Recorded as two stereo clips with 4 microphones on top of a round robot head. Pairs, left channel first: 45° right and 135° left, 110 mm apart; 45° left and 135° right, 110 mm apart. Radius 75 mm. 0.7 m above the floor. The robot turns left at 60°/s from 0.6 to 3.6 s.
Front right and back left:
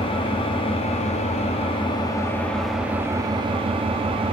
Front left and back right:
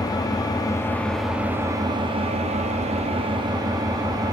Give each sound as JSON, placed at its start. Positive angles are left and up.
{"t": 0.0, "sound": "an engine running", "azimuth_deg": -10, "distance_m": 0.9}